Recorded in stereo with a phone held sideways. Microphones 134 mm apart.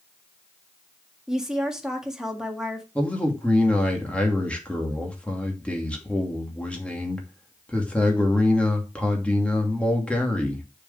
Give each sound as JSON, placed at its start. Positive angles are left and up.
{"t": 1.3, "sound": "a woman speaking", "side_deg": -5, "distance_m": 1.7}
{"t": 3.0, "sound": "a man speaking", "side_deg": 10, "distance_m": 2.5}